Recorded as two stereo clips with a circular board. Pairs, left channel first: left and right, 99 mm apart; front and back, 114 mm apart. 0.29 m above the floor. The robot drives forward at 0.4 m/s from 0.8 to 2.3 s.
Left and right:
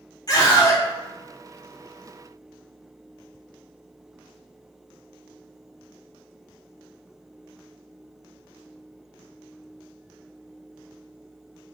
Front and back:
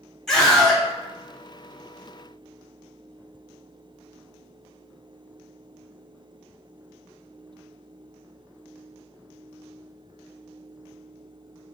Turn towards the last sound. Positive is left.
turn(degrees=120)